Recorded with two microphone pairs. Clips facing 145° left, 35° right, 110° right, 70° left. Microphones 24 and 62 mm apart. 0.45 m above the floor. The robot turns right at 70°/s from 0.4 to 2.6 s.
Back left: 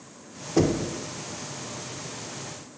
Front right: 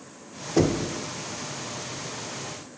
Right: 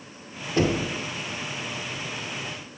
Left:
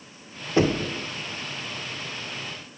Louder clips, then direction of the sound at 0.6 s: Even, left 2 dB; 60° left.